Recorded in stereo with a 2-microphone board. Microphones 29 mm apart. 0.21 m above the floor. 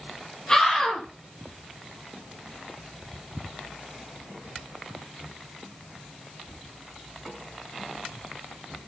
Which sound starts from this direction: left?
A scream, at 0.5 s.